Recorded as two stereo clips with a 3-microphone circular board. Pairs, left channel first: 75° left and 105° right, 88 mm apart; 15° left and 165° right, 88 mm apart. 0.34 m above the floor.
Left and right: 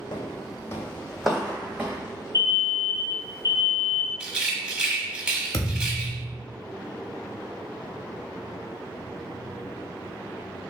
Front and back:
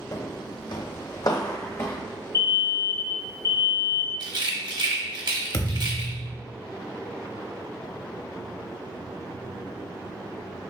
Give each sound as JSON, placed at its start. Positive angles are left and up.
{"t": 0.1, "sound": "footsteps", "azimuth_deg": 60, "distance_m": 0.8}
{"t": 2.3, "sound": "an alarm", "azimuth_deg": -135, "distance_m": 1.0}
{"t": 4.2, "sound": "a rattle", "azimuth_deg": 180, "distance_m": 0.8}
{"t": 5.5, "sound": "a thud", "azimuth_deg": 40, "distance_m": 0.6}